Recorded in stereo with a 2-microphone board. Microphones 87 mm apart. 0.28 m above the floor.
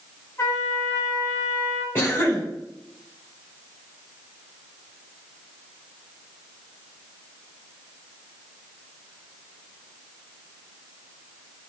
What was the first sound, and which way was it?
A trumpet, 30° left (ahead or behind).